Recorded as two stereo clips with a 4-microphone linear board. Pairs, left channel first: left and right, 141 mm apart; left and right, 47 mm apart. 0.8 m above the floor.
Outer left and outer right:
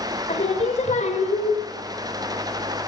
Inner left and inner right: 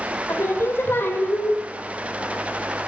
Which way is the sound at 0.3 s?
55° left (ahead or behind).